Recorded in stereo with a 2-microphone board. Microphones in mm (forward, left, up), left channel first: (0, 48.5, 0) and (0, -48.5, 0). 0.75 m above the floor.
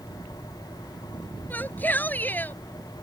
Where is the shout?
20° left (ahead or behind).